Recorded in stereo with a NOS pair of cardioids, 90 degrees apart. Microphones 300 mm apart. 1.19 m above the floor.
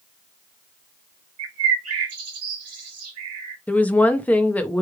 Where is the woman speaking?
5° left, 0.9 m.